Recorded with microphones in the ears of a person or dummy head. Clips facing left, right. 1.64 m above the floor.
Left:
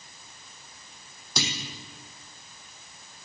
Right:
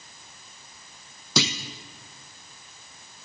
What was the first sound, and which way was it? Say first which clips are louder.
A clunk: right 7 dB; 65° right (ahead or behind).